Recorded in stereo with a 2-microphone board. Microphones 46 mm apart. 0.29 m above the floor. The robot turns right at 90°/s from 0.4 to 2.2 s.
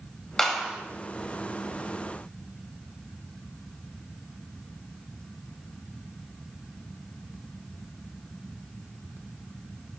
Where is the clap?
170° left, 1.3 m; by 0.8 s 155° right, 1.3 m.